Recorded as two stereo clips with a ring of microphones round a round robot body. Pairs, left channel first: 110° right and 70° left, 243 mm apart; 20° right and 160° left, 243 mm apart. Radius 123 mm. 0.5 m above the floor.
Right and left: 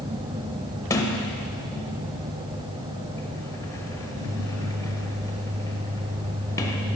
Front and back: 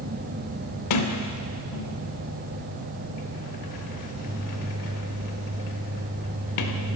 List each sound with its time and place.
0.9 s a sliding door: 35° right, 0.6 m